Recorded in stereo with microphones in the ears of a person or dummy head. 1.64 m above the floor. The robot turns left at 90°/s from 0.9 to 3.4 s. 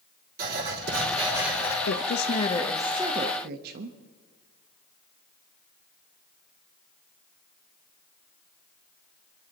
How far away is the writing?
About 4 m.